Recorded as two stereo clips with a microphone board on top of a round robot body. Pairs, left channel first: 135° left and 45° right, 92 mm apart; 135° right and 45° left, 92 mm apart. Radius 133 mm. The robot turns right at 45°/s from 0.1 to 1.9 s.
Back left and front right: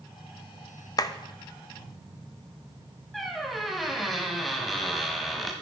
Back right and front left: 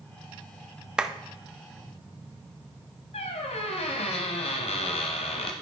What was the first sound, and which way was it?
A clap, 120° left.